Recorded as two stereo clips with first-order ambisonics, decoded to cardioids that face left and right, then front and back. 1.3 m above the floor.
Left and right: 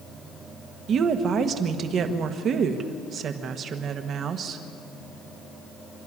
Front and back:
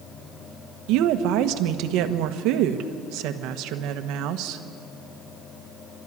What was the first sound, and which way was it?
A woman speaking, 150° right.